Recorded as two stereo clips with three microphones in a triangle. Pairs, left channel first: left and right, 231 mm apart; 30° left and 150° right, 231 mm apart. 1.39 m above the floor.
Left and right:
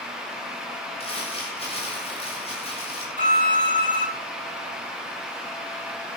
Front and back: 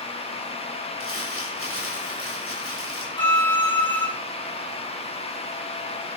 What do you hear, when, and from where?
1.0 s crumpling: 25° left, 7.5 m
3.2 s a violin: 40° right, 6 m